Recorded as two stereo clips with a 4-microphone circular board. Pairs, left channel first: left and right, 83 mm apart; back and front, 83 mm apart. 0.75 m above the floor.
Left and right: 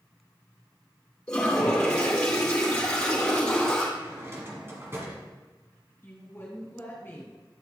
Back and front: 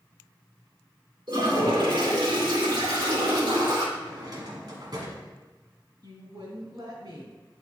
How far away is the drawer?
About 1.5 m.